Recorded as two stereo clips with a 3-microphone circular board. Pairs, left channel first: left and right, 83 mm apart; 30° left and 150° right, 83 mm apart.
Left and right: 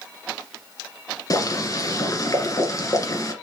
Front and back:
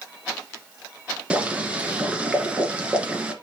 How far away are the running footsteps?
No running footsteps in this recording.